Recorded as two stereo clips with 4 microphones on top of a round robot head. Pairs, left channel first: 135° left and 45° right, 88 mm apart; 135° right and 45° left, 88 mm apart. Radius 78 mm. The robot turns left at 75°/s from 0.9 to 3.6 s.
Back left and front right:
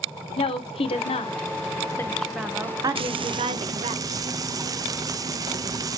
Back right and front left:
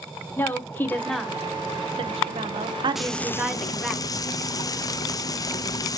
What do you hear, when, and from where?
0.4 s a woman speaking: 155° left, 1.0 m; by 4.0 s 50° right, 1.0 m
3.0 s frying: 40° right, 0.6 m; by 6.0 s 90° right, 0.6 m